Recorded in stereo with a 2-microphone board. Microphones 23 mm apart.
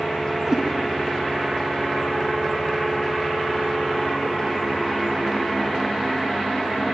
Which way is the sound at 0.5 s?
30° right (ahead or behind).